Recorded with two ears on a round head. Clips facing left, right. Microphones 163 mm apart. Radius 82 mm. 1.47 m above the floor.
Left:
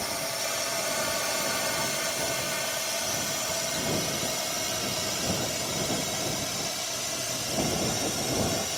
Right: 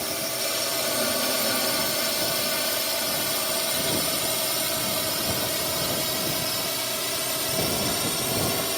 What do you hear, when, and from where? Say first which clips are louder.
0.0 s a drone: right 2 dB; 45° right (ahead or behind); by 8.8 s 80° right